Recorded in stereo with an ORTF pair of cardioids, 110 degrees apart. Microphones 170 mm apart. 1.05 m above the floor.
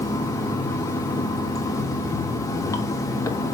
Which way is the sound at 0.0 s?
20° left.